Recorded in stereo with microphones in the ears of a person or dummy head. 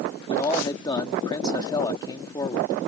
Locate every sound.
0.3 s a man speaking: 20° left (ahead or behind)